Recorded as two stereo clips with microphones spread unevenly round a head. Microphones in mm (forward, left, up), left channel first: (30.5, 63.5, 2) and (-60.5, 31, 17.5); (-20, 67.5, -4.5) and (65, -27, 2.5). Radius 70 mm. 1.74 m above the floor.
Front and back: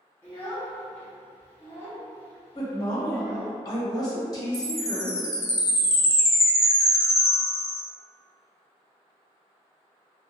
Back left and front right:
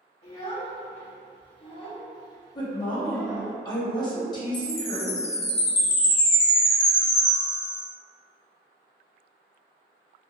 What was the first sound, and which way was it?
A child speaking, 90° left.